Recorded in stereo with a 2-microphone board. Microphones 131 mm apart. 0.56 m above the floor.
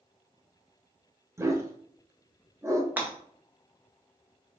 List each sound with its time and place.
1.4 s a dog barking: 20° right (ahead or behind), 0.8 m
3.0 s breaking glass: 15° right (ahead or behind), 1.1 m